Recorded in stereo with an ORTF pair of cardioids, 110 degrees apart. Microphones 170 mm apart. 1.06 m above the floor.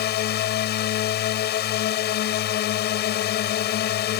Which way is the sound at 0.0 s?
70° left.